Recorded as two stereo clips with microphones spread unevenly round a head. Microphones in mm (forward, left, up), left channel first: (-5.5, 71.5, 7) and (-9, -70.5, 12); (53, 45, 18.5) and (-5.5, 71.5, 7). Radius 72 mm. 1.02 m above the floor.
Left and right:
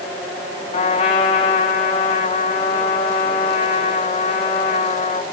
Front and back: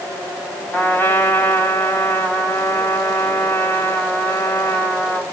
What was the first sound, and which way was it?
A trumpet, 35° left.